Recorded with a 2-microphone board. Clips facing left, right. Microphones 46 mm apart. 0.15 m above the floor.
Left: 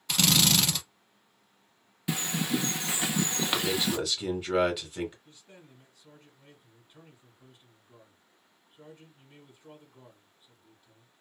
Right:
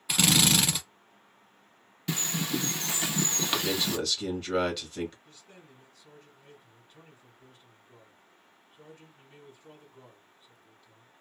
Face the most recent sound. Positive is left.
turn(degrees=20)  # may be behind; listen again after turning